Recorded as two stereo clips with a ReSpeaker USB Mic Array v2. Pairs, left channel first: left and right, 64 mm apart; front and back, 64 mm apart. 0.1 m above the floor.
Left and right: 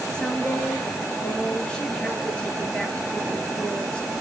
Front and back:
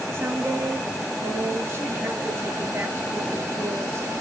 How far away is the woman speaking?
About 1.7 m.